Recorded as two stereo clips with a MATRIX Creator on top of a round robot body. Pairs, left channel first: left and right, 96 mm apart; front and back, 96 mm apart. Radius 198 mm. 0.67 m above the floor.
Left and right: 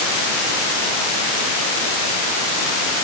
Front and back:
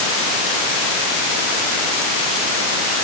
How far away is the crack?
I don't hear a crack.